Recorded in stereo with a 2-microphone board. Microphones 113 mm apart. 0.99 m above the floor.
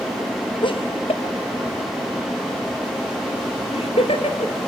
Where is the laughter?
45° left (ahead or behind), 1.1 m; by 4.5 s 60° left (ahead or behind), 4.5 m.